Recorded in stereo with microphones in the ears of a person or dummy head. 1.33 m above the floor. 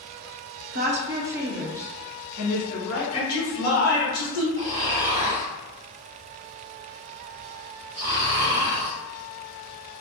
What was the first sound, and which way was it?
A woman speaking, 45° right (ahead or behind).